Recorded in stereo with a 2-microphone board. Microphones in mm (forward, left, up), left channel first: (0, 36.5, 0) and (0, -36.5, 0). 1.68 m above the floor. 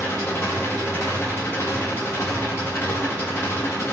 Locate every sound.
0.0 s an engine running: 35° left (ahead or behind), 1.8 m